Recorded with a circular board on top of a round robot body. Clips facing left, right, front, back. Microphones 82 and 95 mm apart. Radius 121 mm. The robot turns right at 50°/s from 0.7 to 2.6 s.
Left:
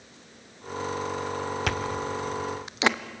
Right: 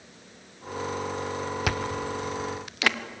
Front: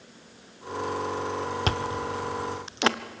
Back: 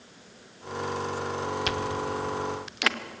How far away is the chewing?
About 1.1 m.